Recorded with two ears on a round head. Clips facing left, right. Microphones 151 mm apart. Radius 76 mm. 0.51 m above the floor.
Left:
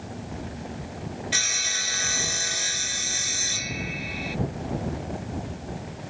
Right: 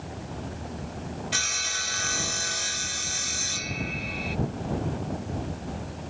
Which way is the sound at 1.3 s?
5° left (ahead or behind).